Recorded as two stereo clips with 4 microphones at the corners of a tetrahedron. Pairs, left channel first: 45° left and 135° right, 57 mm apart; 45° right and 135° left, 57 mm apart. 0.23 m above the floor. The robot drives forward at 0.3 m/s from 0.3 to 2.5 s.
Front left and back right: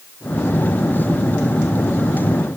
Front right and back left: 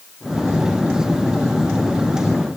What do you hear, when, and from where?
Only background noise.